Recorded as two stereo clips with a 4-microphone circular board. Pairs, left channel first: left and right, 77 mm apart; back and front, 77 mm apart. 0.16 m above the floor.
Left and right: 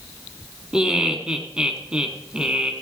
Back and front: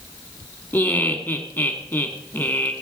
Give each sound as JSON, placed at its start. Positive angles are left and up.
{"t": 0.7, "sound": "laughter", "azimuth_deg": -155, "distance_m": 1.1}